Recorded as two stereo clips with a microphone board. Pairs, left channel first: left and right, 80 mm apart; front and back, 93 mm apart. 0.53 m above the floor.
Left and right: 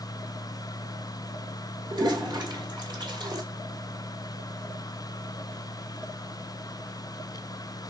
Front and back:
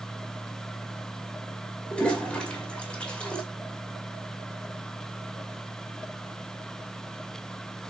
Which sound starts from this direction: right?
A toilet flushing, at 1.9 s.